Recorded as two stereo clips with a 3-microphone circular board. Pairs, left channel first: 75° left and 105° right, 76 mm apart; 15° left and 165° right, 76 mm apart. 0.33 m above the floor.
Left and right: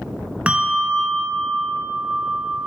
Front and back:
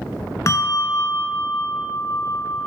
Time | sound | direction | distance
0.5 | a bell | 30° right | 0.7 m